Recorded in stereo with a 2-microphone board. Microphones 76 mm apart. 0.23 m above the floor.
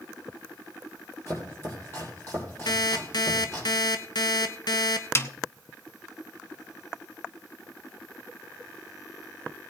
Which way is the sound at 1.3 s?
35° left (ahead or behind).